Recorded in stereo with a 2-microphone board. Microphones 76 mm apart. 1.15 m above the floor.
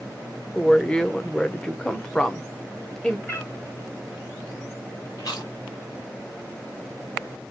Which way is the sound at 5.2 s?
60° left (ahead or behind).